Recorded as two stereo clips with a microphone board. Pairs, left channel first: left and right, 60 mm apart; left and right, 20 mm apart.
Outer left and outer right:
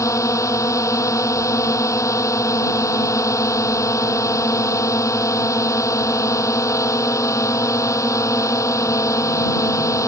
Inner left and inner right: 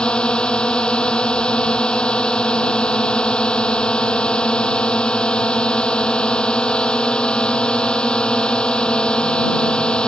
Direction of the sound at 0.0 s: 60° left (ahead or behind).